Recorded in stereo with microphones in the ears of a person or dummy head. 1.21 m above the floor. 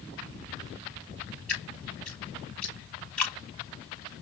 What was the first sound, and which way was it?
Dripping, 5° left (ahead or behind).